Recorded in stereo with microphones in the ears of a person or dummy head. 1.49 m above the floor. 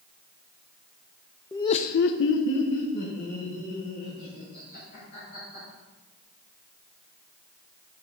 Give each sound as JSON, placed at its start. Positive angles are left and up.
{"t": 1.5, "sound": "laughter", "side_deg": 10, "distance_m": 0.6}